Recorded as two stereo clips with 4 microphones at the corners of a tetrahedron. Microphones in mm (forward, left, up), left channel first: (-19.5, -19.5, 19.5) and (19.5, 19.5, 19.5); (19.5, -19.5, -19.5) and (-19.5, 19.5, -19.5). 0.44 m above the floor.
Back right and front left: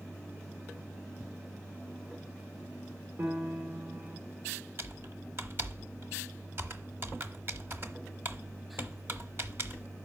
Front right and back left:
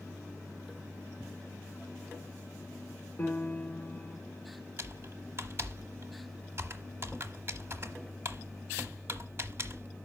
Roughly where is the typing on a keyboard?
Left.